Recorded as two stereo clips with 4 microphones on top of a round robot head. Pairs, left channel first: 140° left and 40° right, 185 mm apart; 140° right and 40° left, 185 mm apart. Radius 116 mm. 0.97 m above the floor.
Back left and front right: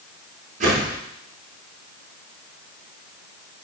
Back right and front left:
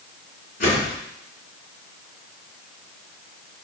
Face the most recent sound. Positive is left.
turn(degrees=-95)